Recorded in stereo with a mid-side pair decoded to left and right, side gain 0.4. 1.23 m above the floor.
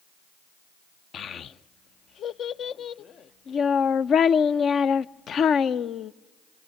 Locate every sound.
1.1 s a child speaking: 65° left, 0.5 m